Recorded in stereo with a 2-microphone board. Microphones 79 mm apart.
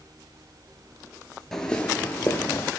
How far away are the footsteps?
About 0.7 m.